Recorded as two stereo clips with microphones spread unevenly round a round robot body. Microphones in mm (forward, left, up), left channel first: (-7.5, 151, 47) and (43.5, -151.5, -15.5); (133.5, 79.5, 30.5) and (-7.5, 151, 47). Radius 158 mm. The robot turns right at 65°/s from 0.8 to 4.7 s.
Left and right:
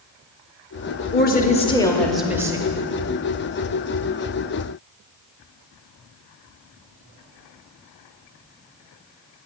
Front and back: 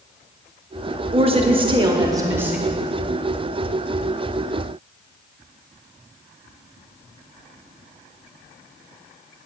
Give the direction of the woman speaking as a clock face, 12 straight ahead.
7 o'clock.